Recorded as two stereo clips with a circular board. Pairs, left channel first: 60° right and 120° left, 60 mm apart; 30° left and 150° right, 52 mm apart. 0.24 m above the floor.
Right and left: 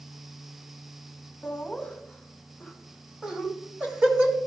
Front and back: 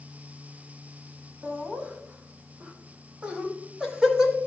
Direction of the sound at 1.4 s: 120° right.